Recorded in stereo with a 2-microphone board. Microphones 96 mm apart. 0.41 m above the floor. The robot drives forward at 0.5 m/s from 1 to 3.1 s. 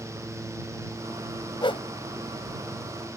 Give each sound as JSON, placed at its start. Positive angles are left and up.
{"t": 1.6, "sound": "a whoosh", "side_deg": 60}